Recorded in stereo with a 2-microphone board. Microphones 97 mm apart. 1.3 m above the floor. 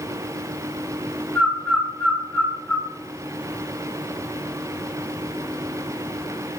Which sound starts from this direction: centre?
A bird, at 1.4 s.